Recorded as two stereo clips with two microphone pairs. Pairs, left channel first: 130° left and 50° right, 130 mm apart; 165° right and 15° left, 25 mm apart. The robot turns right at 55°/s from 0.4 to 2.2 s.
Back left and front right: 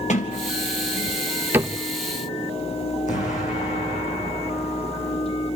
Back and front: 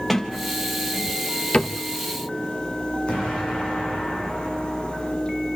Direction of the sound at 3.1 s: 155° left.